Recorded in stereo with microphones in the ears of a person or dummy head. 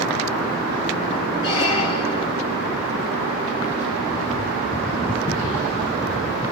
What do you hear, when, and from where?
1.4 s a squeak: 30° left (ahead or behind), 1.1 m